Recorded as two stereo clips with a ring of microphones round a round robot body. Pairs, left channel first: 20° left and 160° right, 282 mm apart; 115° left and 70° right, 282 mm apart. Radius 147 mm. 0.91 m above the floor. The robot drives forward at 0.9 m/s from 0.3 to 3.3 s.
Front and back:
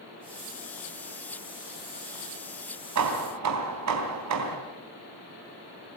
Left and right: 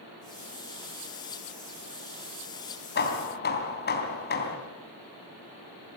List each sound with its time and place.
3.0 s hammering: 170° left, 3 m